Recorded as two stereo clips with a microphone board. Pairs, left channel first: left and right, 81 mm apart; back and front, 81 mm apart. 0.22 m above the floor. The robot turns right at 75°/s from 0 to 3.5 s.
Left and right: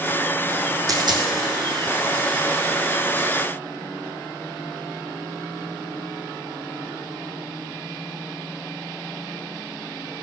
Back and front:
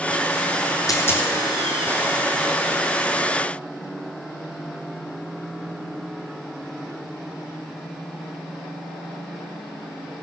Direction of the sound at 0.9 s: 135° right.